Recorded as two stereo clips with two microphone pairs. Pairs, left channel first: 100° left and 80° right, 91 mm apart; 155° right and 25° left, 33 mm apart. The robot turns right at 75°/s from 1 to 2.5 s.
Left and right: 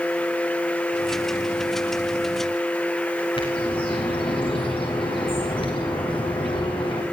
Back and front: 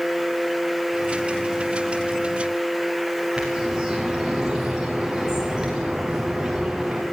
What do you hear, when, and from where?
3.4 s a bird: 95° left, 8.5 m